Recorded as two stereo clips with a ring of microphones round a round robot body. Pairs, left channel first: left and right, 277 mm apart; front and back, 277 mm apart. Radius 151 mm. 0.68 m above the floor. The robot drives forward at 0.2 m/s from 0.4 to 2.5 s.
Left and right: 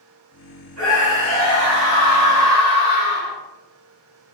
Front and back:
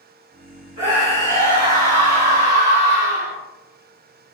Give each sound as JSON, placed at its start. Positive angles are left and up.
{"t": 0.8, "sound": "a scream", "azimuth_deg": -120, "distance_m": 1.8}